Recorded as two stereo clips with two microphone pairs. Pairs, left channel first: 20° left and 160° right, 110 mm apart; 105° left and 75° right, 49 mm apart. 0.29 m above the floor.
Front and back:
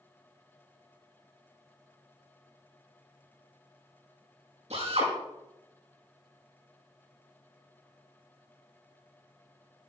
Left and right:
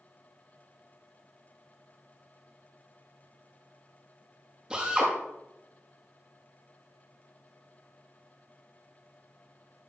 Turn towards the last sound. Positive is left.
turn(degrees=-150)